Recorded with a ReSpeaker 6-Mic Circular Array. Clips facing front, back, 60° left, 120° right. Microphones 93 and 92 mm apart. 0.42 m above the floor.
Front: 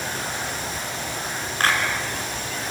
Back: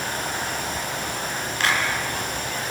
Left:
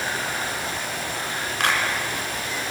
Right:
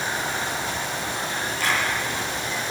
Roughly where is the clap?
Ahead left.